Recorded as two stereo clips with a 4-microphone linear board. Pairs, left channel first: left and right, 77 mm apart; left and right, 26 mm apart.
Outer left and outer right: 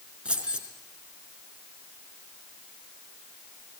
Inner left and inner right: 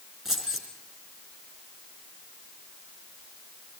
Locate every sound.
0.2 s keys jangling: 15° right (ahead or behind), 3.5 m